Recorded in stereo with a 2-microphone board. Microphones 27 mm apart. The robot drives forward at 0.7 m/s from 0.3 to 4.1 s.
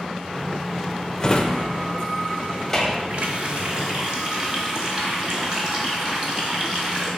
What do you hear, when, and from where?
1.2 s a drawer: 20° left (ahead or behind), 0.6 m; by 3.0 s 10° left (ahead or behind), 1.1 m
3.1 s a running tap: 45° right (ahead or behind), 0.8 m; by 7.1 s 25° right (ahead or behind), 1.3 m